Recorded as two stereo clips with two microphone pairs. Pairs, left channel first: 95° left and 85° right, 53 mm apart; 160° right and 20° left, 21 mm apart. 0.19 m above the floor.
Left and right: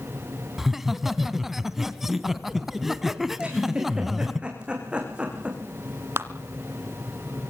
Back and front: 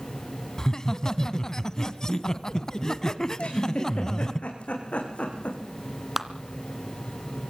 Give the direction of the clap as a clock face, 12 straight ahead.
2 o'clock.